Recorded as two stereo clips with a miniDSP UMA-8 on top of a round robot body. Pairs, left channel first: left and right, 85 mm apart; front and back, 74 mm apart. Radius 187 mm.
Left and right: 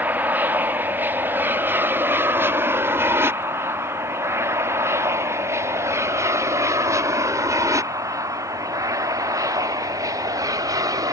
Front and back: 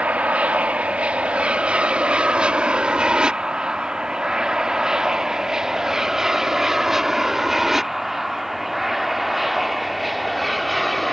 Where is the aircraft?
130° right; by 11.1 s 90° right.